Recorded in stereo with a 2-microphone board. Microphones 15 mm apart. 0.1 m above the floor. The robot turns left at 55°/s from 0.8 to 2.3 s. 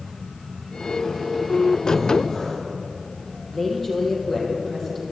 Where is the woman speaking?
20° left (ahead or behind), 3.5 m.